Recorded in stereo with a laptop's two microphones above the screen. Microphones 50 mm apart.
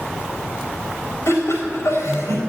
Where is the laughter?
75° left (ahead or behind), 4 m.